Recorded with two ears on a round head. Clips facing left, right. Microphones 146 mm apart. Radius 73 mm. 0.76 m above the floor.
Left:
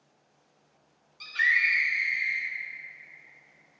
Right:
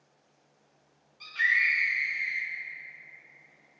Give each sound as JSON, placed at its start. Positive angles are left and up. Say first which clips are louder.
{"t": 1.2, "sound": "a scream", "louder": "left 1 dB", "side_deg": 60, "distance_m": 3.0}